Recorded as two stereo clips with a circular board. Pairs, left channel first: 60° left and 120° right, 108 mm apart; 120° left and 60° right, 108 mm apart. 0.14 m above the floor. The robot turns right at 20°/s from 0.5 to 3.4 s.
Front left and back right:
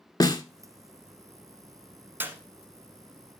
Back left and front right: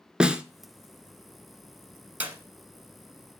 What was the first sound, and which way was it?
A snare drum, 20° left.